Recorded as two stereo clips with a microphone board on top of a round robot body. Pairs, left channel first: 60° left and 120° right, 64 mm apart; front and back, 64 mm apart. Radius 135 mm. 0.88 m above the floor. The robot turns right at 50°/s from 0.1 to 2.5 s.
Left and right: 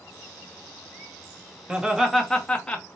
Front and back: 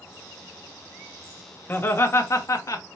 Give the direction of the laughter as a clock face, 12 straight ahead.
2 o'clock.